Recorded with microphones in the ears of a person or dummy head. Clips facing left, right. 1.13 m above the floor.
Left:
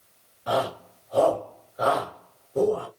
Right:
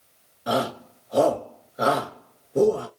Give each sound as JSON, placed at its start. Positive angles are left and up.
{"t": 0.5, "sound": "a shout", "side_deg": -30, "distance_m": 1.4}